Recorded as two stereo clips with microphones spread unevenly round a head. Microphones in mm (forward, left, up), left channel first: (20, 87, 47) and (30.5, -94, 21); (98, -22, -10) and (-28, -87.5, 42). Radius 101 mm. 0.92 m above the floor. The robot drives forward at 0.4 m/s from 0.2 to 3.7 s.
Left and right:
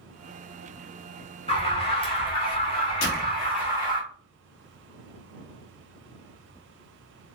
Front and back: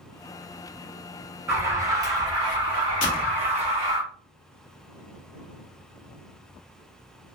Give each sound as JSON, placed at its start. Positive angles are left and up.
{"t": 1.5, "sound": "an alarm", "azimuth_deg": 105, "distance_m": 1.4}
{"t": 3.0, "sound": "a door slam", "azimuth_deg": 55, "distance_m": 1.4}